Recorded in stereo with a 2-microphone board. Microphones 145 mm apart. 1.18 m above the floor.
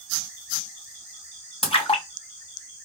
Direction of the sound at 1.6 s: 40° left (ahead or behind).